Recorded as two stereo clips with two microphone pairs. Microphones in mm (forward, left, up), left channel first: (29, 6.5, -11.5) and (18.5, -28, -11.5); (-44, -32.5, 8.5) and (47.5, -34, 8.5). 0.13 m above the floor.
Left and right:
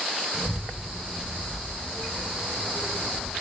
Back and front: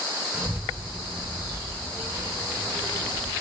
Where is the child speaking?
50° right, 0.8 m; by 3.3 s 170° left, 1.3 m.